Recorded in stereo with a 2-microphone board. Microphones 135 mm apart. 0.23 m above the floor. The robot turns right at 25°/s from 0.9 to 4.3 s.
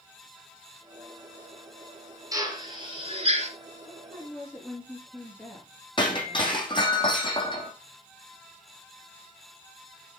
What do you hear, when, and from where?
2.3 s a drill: 25° right (ahead or behind), 3 m; by 3.5 s 50° right (ahead or behind), 3 m
3.9 s a woman speaking: 15° left (ahead or behind), 4.5 m; by 6.7 s 5° left (ahead or behind), 4.5 m
6.0 s breaking glass: 35° left (ahead or behind), 2 m